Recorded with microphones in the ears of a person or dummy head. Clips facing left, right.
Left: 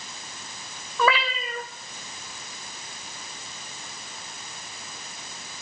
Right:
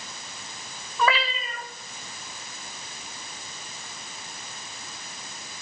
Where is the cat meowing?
80° left, 2.5 m.